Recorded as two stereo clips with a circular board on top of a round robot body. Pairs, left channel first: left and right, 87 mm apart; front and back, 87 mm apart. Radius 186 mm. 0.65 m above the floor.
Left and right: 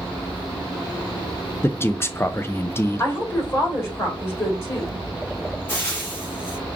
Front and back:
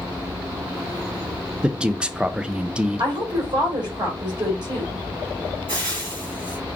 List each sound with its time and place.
1.6 s a man speaking: 115° left, 0.6 m
3.0 s a woman speaking: 145° left, 4 m
5.7 s frying: 155° left, 3.5 m